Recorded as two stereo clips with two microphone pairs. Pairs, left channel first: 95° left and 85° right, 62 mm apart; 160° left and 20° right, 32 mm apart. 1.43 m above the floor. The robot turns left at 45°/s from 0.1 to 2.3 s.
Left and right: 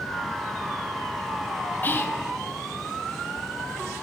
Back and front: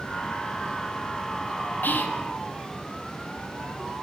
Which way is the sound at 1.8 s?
155° left.